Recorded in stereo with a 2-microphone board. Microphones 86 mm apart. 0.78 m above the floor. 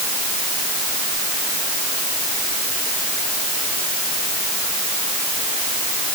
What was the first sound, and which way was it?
Only background noise.